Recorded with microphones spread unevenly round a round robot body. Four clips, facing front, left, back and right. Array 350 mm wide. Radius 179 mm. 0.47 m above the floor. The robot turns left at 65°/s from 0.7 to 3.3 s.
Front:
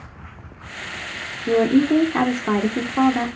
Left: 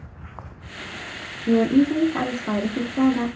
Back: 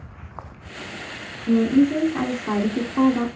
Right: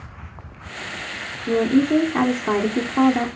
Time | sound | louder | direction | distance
1.5 | a woman speaking | even, front 1 dB | 15° left | 1.0 m